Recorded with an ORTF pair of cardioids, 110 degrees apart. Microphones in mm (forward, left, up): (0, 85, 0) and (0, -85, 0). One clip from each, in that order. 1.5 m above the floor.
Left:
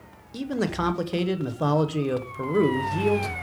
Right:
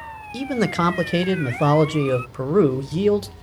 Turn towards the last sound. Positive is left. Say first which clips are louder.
# right 5 dB
turn(degrees=-25)